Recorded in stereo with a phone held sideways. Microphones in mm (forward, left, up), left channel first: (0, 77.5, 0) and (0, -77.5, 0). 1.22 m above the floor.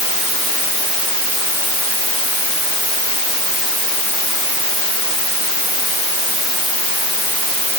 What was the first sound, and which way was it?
Only background noise.